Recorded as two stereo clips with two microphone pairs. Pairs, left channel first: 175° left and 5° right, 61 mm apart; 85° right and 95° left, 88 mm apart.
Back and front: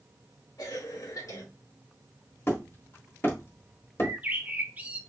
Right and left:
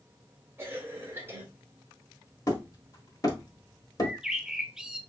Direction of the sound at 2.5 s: 135° right.